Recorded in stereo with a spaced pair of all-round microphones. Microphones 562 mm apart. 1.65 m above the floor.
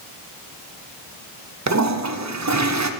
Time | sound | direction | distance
1.7 | a toilet flushing | 30° right (ahead or behind) | 0.6 m